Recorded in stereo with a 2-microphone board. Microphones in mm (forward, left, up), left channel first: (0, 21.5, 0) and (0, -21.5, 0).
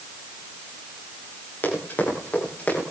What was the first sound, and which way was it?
Running footsteps, 45° left (ahead or behind).